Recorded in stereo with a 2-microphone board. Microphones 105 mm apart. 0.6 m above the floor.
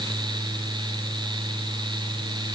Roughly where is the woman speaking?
I don't hear a woman speaking.